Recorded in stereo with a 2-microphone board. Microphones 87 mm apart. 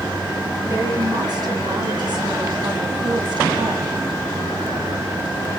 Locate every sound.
0.7 s a woman speaking: 50° right (ahead or behind), 2.5 m; by 3.9 s 65° right (ahead or behind), 1.9 m